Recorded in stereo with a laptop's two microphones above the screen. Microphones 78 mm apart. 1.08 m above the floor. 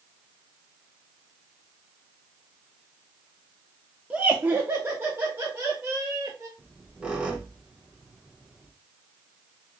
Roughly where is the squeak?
Centre.